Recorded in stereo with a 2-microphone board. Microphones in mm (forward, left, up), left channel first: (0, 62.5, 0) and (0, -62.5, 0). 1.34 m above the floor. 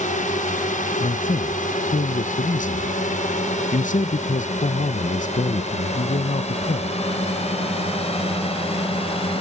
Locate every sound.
0.0 s a drone: 70° left (ahead or behind); by 9.4 s 45° left (ahead or behind)
1.0 s a man speaking: 75° left (ahead or behind)